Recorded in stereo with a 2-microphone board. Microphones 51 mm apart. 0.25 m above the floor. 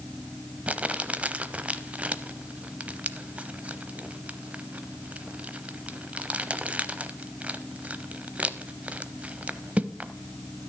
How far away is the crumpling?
About 0.6 m.